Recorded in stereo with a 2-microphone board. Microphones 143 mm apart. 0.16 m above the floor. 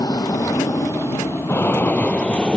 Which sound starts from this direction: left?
An aircraft, at 0.0 s.